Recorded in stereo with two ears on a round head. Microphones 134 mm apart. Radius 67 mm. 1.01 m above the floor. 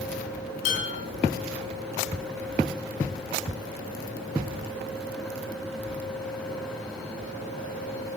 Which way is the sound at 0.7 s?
50° left (ahead or behind).